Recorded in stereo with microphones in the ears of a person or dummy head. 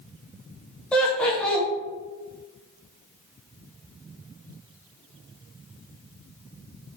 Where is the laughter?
5° left (ahead or behind), 0.9 m.